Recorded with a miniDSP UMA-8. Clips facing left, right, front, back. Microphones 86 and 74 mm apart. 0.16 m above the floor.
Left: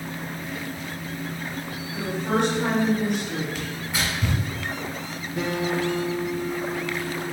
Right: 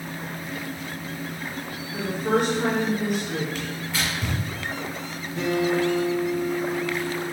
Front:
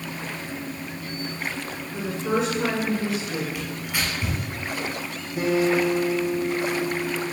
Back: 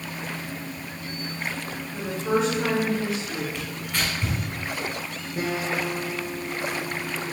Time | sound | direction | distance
1.9 | a woman speaking | 85° right | 1.8 m
3.5 | tearing paper | 55° left | 1.1 m
5.4 | a guitar | 165° left | 1.7 m